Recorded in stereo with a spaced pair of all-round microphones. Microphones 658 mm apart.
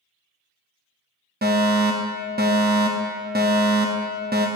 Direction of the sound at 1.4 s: 15° right (ahead or behind).